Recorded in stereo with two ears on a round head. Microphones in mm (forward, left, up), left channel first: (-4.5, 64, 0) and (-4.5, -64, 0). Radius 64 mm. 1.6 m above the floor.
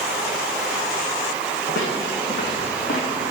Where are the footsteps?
55° left (ahead or behind), 6 m; by 3.3 s 65° left (ahead or behind), 7 m.